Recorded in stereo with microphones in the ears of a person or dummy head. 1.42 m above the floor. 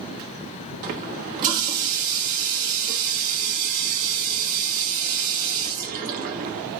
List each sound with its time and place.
0.8 s a running tap: 50° right (ahead or behind), 1.2 m